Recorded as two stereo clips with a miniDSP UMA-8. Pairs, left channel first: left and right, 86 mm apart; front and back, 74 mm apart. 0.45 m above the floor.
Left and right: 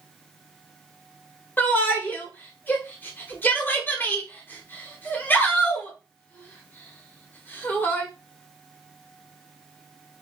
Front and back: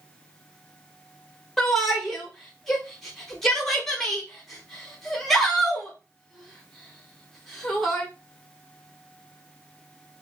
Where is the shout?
80° left, 1.0 m.